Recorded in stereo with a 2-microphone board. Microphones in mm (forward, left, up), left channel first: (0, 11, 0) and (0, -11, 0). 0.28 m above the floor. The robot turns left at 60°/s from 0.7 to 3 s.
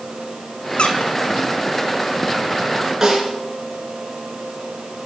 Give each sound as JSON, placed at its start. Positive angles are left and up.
{"t": 0.8, "sound": "a squeak", "side_deg": 50, "distance_m": 1.2}
{"t": 3.0, "sound": "a snare drum", "side_deg": -15, "distance_m": 3.0}